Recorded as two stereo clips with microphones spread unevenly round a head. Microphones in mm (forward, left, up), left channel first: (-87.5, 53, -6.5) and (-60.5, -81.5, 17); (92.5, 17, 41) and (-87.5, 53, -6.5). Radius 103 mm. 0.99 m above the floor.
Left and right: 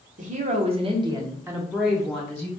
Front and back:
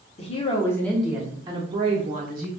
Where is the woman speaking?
70° right, 0.9 m; by 2.5 s 175° left, 1.2 m.